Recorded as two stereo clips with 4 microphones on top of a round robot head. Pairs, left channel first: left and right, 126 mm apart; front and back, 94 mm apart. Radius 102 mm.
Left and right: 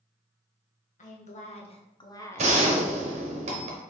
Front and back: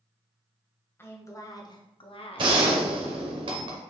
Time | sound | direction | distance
1.0 | a woman speaking | 70° left | 1.5 m
2.4 | a gunshot | 130° right | 1.0 m